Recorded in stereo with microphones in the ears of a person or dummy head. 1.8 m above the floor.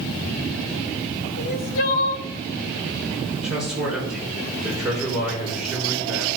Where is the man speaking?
5° right (ahead or behind), 6.5 m.